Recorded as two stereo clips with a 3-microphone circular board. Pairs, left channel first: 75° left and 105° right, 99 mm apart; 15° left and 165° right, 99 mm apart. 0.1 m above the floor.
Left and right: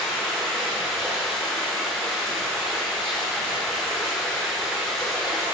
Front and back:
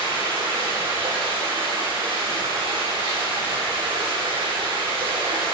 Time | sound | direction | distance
0.0 | running water | 165° left | 3.5 m